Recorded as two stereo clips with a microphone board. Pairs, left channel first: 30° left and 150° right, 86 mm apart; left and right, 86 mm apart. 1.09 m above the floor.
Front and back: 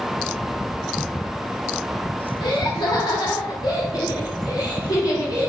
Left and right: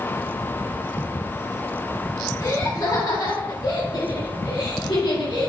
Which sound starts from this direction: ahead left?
Laughter, at 2.4 s.